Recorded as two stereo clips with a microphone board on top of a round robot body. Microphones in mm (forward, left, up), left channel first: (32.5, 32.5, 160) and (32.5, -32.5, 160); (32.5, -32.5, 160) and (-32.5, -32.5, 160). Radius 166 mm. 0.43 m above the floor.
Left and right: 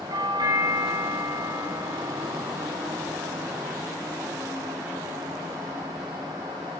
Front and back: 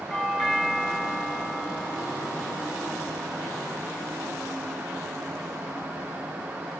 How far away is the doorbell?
About 5.5 m.